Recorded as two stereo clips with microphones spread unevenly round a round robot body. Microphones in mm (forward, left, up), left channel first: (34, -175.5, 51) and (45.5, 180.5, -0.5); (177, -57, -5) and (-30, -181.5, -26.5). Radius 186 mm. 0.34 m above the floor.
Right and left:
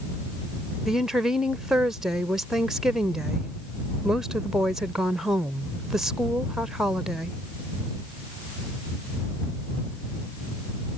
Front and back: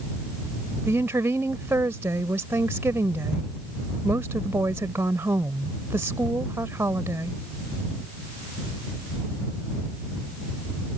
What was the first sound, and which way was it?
A woman speaking, 155° left.